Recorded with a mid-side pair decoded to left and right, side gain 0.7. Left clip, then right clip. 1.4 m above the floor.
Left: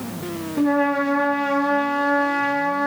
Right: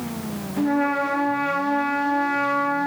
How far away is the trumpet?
About 3 m.